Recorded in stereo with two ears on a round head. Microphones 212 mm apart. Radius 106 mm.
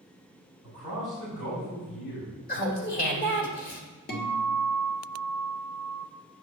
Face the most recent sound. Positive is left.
turn(degrees=40)  # may be behind; listen again after turning